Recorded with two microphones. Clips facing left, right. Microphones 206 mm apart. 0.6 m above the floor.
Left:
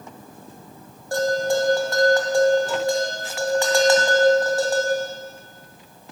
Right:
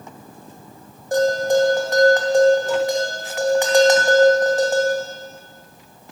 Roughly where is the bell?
Centre.